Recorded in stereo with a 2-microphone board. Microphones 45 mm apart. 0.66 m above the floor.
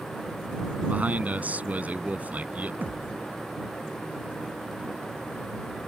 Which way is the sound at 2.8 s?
45° right (ahead or behind).